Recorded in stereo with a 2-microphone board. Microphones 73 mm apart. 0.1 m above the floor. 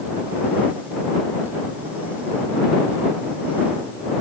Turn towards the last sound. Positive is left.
No sound to turn to.